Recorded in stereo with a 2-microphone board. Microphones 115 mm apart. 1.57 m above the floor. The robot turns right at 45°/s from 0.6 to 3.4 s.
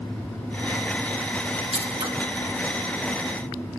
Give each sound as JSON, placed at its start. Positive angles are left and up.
{"t": 1.7, "sound": "scissors", "side_deg": -60, "distance_m": 2.0}